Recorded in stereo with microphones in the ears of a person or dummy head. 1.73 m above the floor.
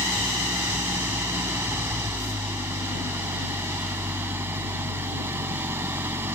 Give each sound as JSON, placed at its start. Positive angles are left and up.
{"t": 0.0, "sound": "an engine running", "side_deg": -15}